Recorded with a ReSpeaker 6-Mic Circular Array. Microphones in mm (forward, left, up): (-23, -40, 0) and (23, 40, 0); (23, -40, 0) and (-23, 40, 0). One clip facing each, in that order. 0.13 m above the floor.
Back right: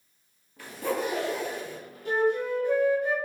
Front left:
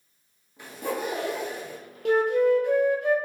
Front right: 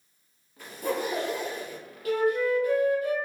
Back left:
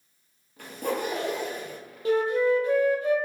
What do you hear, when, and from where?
0.6 s a zipper: 130° left, 1.3 m
2.0 s a flute: 60° left, 0.6 m